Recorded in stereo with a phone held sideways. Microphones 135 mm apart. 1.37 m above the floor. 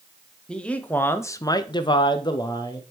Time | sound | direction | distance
0.5 | a man speaking | 5° left (ahead or behind) | 0.8 m